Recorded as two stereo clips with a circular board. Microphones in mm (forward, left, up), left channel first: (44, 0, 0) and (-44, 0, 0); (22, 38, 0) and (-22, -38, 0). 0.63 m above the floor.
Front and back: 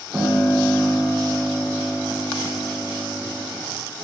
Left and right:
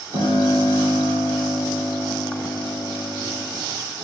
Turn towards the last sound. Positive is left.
turn(degrees=-120)